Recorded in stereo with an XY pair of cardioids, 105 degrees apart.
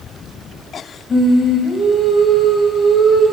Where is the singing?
15° left, 4.5 m.